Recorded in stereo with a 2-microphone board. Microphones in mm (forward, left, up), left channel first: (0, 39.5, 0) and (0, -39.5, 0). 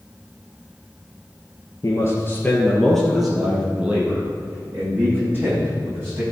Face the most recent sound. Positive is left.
turn(degrees=-30)  # may be behind; listen again after turning